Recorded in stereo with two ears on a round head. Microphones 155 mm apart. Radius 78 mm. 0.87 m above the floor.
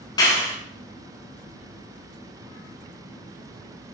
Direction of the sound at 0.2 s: 25° left (ahead or behind).